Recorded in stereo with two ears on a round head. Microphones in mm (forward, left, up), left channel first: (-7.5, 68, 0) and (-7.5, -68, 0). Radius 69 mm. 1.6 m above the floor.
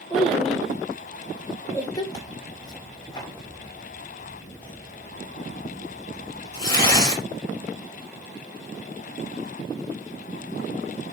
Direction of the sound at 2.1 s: 25° left (ahead or behind).